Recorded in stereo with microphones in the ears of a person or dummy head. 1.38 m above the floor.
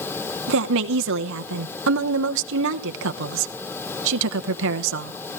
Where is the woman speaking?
70° right (ahead or behind), 1.0 m.